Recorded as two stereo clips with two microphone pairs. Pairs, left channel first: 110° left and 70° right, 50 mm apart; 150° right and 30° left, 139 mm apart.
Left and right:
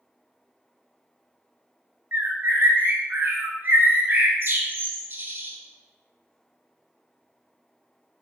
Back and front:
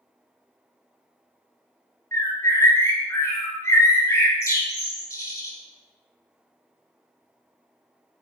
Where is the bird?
90° right, 0.7 m.